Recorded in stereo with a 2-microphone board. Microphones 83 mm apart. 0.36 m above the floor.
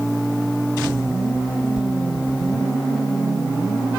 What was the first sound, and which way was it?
A sliding door, 15° right (ahead or behind).